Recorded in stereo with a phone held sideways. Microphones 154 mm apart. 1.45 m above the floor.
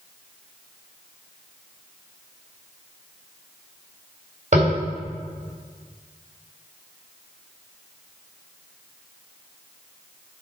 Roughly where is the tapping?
Right.